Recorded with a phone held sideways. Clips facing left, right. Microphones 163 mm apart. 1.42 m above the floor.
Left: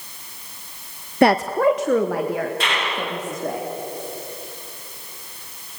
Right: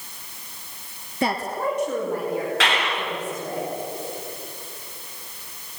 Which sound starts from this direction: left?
A woman speaking, at 1.2 s.